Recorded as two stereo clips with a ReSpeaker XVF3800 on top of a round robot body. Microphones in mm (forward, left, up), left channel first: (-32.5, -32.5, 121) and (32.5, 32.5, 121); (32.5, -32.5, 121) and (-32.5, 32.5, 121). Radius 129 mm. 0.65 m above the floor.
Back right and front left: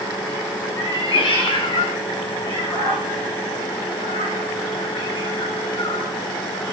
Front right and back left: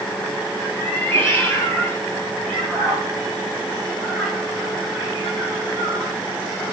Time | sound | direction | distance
0.8 | a cat meowing | 110° right | 4.5 m